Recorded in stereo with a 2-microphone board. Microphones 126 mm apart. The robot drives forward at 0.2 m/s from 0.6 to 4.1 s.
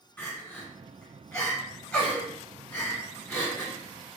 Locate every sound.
0.2 s crying: 10° left (ahead or behind), 1.5 m